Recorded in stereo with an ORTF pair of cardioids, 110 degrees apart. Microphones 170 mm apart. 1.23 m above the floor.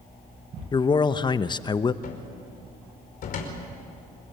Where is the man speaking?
25° left, 0.9 m.